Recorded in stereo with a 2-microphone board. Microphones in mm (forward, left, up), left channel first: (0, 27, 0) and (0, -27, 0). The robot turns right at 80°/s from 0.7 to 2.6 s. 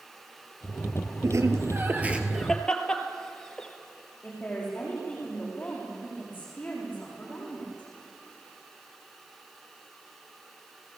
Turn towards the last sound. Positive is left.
turn(degrees=20)  # may be behind; listen again after turning